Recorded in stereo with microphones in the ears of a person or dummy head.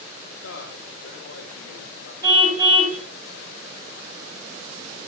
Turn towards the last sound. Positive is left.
turn(degrees=-25)  # may be behind; listen again after turning